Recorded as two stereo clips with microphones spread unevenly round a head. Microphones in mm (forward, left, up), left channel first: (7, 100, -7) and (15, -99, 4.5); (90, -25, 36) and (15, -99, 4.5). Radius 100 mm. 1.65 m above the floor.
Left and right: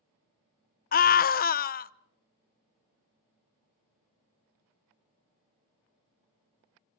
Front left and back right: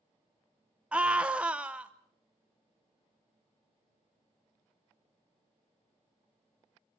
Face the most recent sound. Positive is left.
turn(degrees=125)